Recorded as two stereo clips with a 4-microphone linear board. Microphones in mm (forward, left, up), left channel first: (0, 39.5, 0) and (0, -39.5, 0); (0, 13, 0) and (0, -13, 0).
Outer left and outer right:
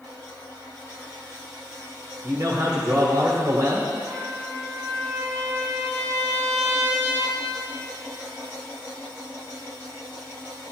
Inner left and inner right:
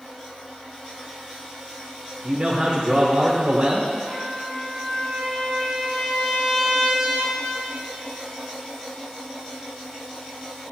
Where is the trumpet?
10° right (ahead or behind), 2.0 m.